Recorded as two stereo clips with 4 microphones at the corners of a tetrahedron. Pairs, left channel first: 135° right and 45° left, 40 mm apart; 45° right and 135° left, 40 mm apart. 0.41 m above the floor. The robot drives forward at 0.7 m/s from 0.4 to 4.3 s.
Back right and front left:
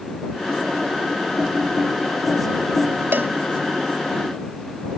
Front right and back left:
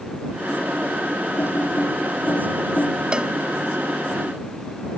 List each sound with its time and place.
1.4 s typing on a keyboard: 20° right; by 3.0 s 25° right
3.1 s a cowbell: 75° left